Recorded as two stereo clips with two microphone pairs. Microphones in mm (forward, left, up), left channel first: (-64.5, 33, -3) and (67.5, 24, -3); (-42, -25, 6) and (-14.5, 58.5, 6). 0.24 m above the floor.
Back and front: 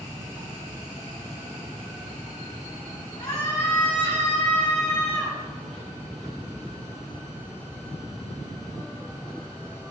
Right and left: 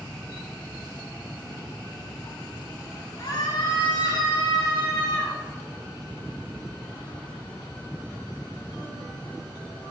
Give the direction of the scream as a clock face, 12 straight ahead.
4 o'clock.